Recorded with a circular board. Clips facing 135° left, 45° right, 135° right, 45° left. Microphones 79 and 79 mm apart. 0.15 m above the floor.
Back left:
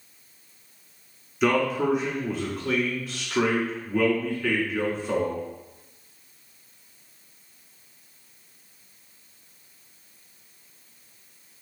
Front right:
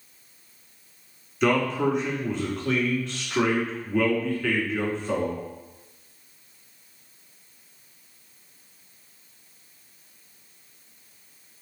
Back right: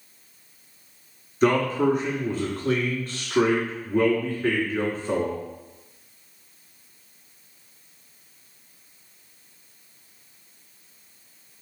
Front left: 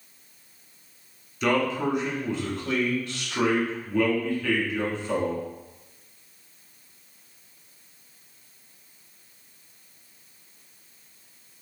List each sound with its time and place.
1.4 s a man speaking: 140° right, 1.2 m